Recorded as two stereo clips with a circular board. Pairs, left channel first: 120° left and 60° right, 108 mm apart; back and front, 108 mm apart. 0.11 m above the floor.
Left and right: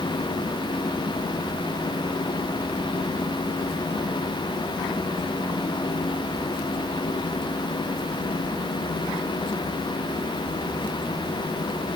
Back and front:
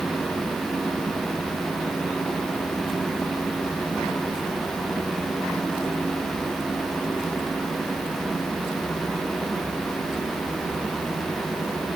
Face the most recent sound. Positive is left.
No sound to turn to.